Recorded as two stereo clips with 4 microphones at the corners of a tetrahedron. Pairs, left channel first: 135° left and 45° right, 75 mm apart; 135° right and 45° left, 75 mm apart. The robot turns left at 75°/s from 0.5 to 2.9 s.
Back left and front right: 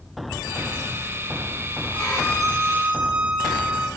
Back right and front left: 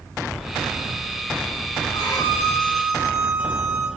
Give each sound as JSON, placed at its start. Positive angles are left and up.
{"t": 1.9, "sound": "a violin", "azimuth_deg": -150, "distance_m": 3.5}